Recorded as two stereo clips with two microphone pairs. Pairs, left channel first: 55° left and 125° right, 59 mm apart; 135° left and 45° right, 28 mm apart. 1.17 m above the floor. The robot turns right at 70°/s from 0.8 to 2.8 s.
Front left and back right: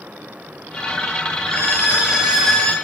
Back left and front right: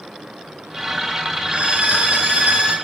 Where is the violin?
100° right, 2 m; by 2.8 s 10° right, 2 m.